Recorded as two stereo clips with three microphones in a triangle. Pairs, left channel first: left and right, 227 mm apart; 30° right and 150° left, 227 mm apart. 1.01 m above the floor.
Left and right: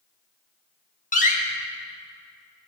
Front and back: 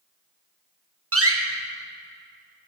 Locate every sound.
1.1 s a door slam: 145° left, 0.9 m